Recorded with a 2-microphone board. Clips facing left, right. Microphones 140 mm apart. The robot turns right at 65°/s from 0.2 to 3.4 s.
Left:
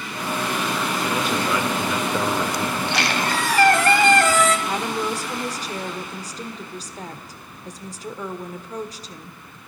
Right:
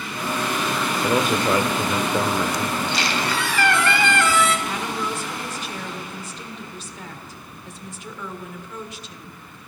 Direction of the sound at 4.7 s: 35° left (ahead or behind).